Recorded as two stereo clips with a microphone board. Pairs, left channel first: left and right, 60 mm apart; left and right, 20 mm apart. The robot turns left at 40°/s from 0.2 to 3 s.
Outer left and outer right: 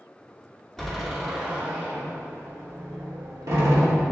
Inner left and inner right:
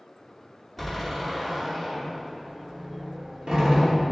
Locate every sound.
0.8 s a door slam: 10° left (ahead or behind), 2.5 m; by 4.0 s 75° right (ahead or behind), 2.5 m